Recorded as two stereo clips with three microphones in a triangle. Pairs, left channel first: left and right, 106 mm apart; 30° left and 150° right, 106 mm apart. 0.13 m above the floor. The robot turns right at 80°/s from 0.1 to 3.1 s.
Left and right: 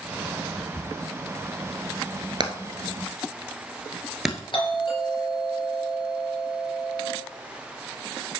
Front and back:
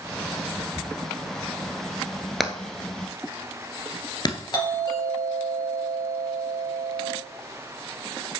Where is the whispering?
175° left, 1.5 m; by 0.9 s 160° right, 1.5 m.